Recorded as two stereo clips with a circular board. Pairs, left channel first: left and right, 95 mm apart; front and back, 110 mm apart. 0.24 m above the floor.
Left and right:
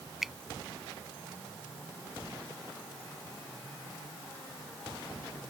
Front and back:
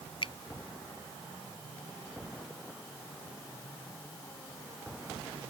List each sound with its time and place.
0.2 s a finger snap: 5° right